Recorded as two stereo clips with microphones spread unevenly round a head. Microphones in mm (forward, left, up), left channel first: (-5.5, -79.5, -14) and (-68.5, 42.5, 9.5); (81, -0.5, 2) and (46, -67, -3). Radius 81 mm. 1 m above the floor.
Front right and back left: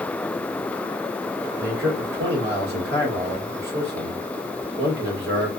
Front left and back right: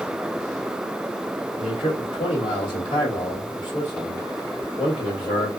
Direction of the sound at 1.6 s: 110° left.